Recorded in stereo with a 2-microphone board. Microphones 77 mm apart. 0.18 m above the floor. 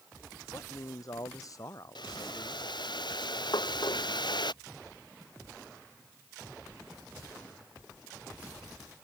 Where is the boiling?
70° left (ahead or behind).